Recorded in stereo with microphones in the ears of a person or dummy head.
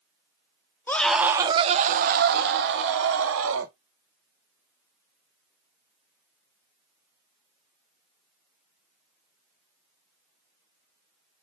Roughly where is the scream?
Centre.